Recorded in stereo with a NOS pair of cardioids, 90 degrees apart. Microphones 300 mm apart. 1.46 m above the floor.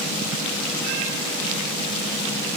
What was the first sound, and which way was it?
Only background noise.